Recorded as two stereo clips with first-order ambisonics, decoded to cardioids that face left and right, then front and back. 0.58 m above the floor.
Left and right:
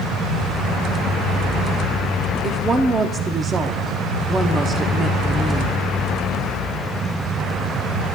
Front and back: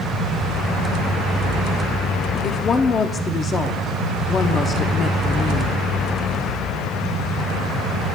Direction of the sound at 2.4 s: 40° right.